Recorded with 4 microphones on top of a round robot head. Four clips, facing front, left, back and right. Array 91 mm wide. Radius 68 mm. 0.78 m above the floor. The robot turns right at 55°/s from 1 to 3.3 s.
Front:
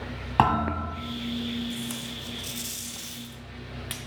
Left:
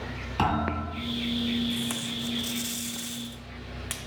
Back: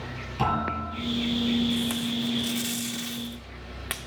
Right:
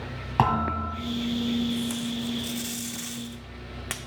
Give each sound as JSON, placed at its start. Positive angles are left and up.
{"t": 0.4, "sound": "a thud", "azimuth_deg": -35, "distance_m": 1.7}
{"t": 1.7, "sound": "tape being pulled", "azimuth_deg": 130, "distance_m": 0.8}